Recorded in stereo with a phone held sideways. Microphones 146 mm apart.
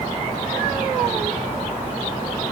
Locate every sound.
Only background noise.